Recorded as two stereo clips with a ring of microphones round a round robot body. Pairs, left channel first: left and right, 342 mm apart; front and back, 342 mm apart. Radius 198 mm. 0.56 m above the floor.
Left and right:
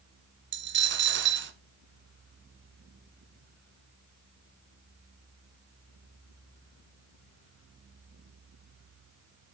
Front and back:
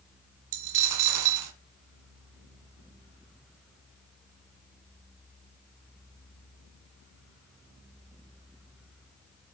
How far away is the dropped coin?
About 1.8 m.